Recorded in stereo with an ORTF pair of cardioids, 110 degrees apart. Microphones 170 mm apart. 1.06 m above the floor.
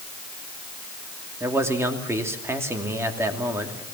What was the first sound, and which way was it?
A man speaking, 15° right.